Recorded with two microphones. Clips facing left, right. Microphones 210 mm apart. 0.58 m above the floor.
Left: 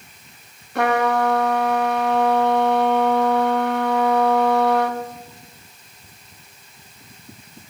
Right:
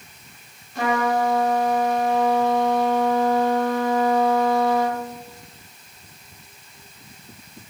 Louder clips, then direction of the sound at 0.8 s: Left 3 dB; 60° left (ahead or behind).